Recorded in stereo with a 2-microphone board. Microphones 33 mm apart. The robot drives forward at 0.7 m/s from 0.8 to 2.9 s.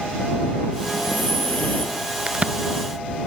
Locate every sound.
0.8 s breathing: 50° left (ahead or behind), 3.5 m; by 2.0 s 45° left (ahead or behind), 4 m
2.3 s a crack: 35° right (ahead or behind), 1.0 m; by 2.5 s 40° right (ahead or behind), 0.9 m